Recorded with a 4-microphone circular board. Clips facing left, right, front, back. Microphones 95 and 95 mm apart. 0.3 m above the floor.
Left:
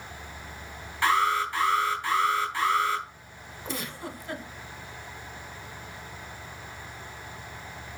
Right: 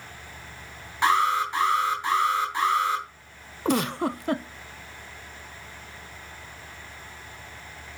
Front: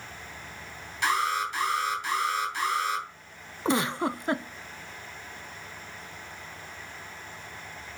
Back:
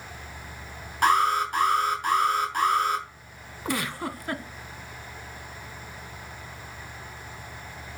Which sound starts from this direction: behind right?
An alarm, at 1.0 s.